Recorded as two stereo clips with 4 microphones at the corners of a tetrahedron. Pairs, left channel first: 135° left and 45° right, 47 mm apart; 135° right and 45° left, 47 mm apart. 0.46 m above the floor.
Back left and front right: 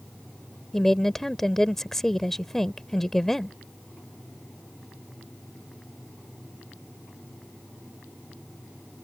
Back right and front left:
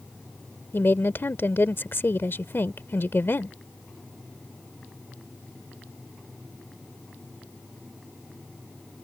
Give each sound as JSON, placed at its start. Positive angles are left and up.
{"t": 0.7, "sound": "a woman speaking", "azimuth_deg": -145}